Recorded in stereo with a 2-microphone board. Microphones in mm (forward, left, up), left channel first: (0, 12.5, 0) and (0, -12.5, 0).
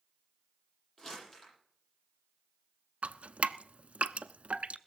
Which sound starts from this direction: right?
Dripping, at 3.0 s.